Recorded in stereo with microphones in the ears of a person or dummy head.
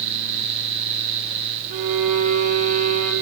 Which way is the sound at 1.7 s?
45° right (ahead or behind).